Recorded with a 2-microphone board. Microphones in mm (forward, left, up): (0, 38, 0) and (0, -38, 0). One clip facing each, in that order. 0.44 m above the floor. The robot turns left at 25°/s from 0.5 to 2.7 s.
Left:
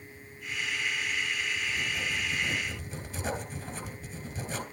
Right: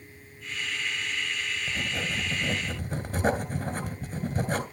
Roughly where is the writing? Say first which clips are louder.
Right 1 dB; right.